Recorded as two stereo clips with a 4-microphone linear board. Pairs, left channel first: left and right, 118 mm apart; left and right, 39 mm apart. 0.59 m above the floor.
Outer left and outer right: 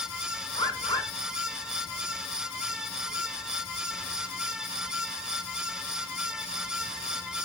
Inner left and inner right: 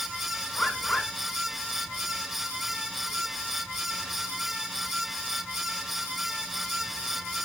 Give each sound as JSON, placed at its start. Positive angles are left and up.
{"t": 0.5, "sound": "a bird", "side_deg": 35, "distance_m": 2.0}